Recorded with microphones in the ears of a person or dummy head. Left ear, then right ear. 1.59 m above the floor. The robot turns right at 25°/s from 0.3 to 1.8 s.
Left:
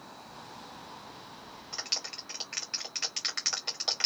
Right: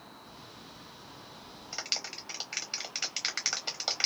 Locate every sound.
1.7 s a clap: centre (ahead or behind), 1.0 m; by 4.1 s 5° right (ahead or behind), 1.0 m